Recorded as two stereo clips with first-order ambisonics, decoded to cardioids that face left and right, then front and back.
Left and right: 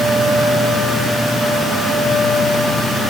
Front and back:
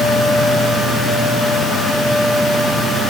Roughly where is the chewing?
No chewing in this recording.